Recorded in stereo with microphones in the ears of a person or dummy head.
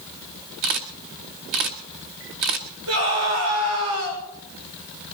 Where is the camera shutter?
40° right (ahead or behind), 1.2 m.